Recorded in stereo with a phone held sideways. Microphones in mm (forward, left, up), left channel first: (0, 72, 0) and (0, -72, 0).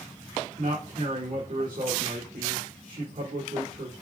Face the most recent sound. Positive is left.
turn(degrees=-70)  # may be behind; listen again after turning